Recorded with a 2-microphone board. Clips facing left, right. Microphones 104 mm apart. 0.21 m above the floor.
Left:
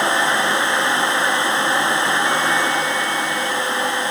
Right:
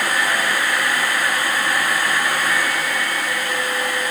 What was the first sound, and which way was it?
Only background noise.